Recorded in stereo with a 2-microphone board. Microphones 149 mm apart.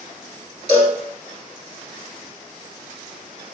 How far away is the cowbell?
About 1.1 m.